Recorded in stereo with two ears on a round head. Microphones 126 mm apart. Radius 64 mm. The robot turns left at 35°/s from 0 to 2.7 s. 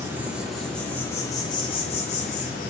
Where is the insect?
160° right, 0.9 m; by 2.7 s 105° left, 0.9 m.